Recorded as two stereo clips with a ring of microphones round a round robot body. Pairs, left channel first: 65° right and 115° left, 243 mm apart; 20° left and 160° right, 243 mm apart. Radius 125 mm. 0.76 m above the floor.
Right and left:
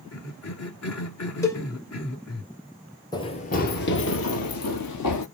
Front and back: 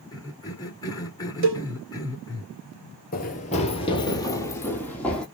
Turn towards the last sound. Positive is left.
turn(degrees=-65)